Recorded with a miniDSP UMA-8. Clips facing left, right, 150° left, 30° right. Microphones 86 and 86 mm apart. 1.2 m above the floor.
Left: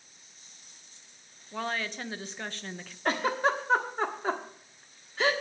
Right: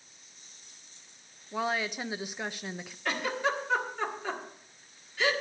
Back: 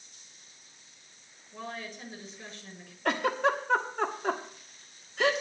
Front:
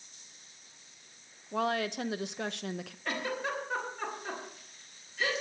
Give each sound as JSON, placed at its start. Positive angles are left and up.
{"t": 1.5, "sound": "a woman speaking", "azimuth_deg": -10, "distance_m": 0.7}
{"t": 3.0, "sound": "a giggle", "azimuth_deg": 140, "distance_m": 1.4}